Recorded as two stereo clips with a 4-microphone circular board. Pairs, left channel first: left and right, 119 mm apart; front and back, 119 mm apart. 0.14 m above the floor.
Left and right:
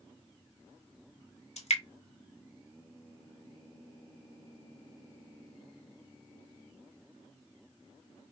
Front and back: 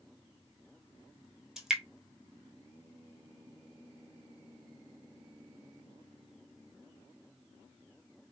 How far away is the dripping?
About 0.9 m.